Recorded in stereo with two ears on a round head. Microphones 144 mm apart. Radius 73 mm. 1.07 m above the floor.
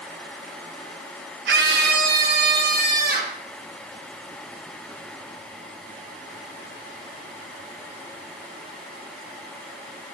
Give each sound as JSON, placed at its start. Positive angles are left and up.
{"t": 1.5, "sound": "a scream", "side_deg": -70, "distance_m": 1.1}